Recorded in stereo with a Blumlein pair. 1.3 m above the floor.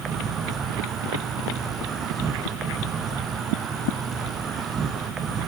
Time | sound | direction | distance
0.0 | an insect | 25° right | 0.8 m